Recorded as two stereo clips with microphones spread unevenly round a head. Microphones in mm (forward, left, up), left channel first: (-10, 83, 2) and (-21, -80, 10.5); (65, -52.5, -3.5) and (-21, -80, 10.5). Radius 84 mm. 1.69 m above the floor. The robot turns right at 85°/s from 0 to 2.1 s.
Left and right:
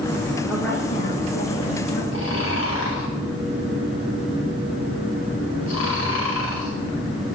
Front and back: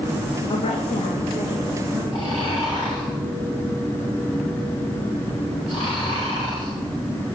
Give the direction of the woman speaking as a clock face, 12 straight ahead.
12 o'clock.